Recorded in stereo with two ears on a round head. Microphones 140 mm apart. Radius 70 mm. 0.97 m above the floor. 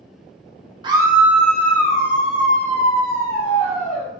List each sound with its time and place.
0.8 s a scream: 30° right (ahead or behind), 0.6 m; by 4.1 s 55° left (ahead or behind), 1.6 m